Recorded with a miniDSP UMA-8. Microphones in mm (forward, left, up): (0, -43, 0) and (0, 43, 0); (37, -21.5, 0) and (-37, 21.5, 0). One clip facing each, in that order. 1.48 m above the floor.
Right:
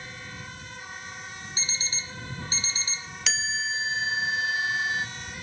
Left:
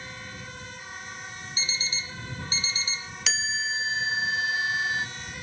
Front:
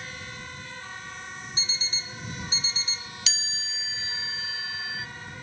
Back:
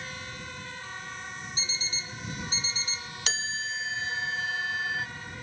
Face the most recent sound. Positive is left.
turn(degrees=180)